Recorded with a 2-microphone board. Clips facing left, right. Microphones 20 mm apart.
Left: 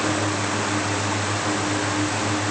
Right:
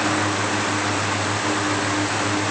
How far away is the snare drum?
I don't hear a snare drum.